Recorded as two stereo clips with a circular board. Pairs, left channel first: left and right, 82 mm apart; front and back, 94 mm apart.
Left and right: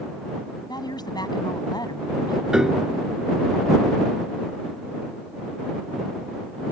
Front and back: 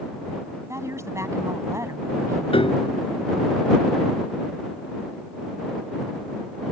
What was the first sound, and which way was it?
A woman speaking, 120° left.